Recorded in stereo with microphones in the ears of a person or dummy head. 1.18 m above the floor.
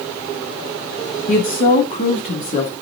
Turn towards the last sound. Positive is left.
turn(degrees=45)  # may be behind; listen again after turning